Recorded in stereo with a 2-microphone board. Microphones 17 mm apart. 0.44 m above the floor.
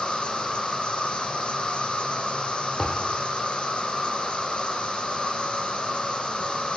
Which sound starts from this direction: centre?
A thud, at 2.8 s.